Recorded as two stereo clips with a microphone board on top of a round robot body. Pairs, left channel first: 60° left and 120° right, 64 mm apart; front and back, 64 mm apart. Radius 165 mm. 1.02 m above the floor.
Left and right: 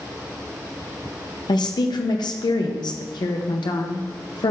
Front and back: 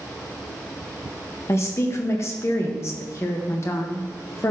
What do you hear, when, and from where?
1.5 s a woman speaking: 50° left, 0.9 m